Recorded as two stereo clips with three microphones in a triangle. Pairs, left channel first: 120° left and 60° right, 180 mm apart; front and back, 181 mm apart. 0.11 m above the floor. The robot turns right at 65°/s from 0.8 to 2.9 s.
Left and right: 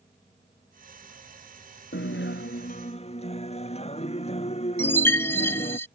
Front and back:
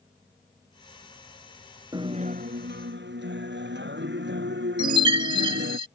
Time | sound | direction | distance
1.9 | a guitar | 110° left | ?
4.8 | a chime | straight behind | ?